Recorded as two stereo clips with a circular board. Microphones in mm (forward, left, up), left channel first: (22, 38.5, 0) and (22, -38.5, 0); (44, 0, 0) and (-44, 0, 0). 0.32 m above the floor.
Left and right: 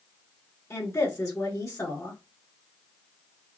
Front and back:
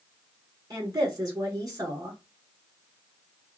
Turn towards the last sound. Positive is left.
turn(degrees=140)